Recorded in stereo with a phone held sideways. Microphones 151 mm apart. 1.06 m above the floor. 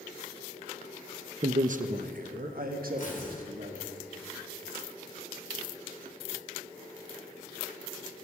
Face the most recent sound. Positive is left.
turn(degrees=60)  # may be behind; listen again after turning